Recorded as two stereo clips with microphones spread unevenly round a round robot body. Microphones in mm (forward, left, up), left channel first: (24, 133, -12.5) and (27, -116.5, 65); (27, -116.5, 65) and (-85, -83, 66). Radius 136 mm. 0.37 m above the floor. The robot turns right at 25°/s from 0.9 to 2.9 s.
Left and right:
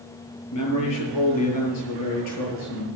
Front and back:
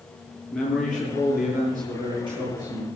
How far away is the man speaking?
About 6.5 m.